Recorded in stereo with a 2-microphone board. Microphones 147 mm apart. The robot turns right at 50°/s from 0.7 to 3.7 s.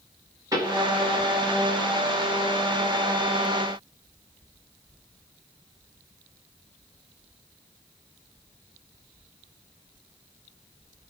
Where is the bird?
No bird in this recording.